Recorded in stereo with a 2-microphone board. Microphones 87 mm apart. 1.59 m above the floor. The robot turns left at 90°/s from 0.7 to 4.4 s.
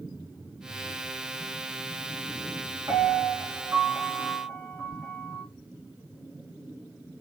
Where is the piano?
55° right, 2 m; by 5.4 s 165° left, 2 m.